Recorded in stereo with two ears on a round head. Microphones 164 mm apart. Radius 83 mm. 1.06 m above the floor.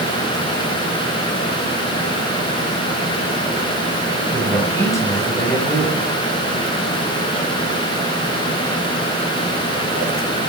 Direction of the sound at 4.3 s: 15° left (ahead or behind).